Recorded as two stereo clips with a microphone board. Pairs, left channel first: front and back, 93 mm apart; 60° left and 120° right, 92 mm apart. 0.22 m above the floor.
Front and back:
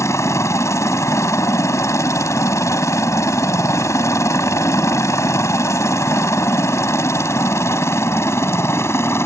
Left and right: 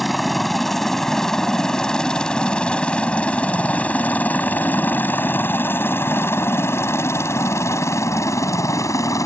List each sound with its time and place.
0.0 s a helicopter: 30° right; by 9.3 s 40° left